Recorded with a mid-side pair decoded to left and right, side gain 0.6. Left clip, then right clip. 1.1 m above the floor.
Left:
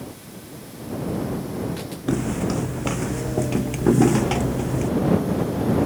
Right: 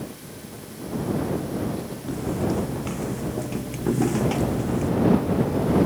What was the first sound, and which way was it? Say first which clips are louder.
Footsteps: left 2 dB; 50° left.